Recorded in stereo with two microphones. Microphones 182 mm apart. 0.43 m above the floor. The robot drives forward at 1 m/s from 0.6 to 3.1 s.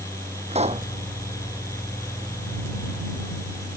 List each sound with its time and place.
0.5 s a pop: 35° right (ahead or behind)